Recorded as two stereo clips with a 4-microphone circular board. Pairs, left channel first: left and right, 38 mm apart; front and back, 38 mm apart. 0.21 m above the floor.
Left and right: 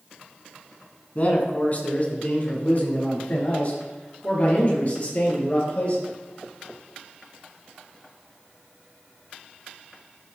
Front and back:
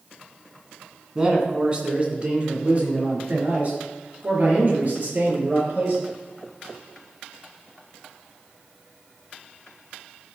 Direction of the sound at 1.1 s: 115° left.